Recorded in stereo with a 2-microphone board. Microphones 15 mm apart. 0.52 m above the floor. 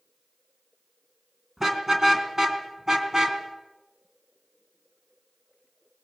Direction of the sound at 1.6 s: 35° right (ahead or behind).